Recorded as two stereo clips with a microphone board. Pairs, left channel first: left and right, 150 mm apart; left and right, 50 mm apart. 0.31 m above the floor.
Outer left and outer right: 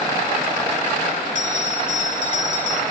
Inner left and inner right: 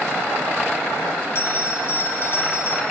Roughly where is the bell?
Left.